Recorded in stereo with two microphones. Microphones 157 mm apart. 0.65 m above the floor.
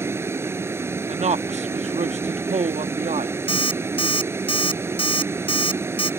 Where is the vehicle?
15° right (ahead or behind).